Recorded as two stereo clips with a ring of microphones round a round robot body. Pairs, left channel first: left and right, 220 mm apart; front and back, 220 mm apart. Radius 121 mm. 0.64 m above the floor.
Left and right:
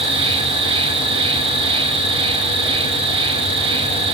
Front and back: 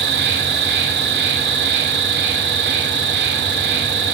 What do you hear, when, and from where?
0.0 s an insect: 150° right, 2.5 m